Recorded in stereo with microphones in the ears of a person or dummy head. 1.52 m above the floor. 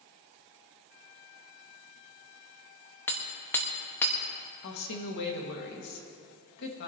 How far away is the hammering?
About 1.6 m.